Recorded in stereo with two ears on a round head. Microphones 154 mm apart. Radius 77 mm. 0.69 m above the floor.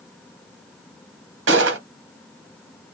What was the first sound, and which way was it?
A gunshot, 80° right.